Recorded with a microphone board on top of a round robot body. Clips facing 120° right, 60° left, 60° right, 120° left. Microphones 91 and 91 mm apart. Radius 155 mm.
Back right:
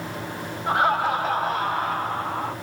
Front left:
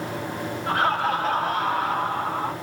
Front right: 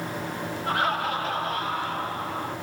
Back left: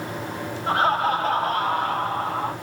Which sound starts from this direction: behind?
Laughter, at 0.7 s.